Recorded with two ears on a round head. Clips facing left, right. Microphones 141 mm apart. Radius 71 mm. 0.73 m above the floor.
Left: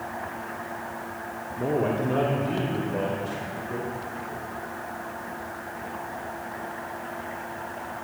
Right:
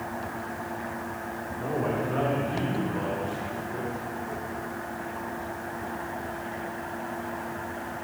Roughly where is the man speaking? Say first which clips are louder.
Left 4 dB; left.